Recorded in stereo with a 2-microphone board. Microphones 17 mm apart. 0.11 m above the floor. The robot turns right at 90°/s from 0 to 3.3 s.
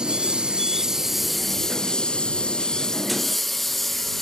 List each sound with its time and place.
0.0 s a lawn mower: 65° right (ahead or behind); by 4.2 s 15° left (ahead or behind)